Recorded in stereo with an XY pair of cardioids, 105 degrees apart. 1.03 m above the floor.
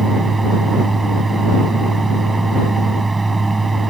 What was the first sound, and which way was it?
A fan, 15° right.